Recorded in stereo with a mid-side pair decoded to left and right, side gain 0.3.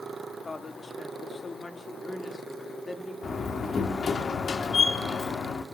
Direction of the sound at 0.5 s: 45° left.